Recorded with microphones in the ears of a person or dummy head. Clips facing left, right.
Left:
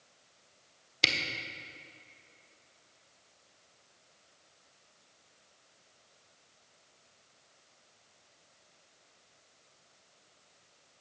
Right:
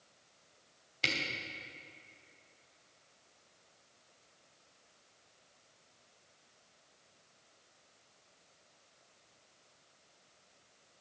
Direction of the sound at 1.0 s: 65° left (ahead or behind).